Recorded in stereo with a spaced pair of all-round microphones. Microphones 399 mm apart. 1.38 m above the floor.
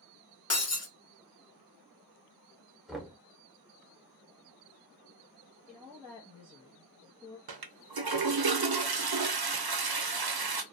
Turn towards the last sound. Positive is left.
turn(degrees=-65)  # may be behind; listen again after turning